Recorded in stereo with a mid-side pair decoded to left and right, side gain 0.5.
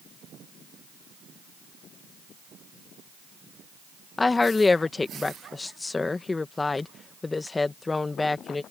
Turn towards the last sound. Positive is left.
turn(degrees=25)